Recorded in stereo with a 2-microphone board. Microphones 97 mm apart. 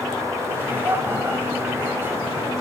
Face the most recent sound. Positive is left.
turn(degrees=-20)  # may be behind; listen again after turning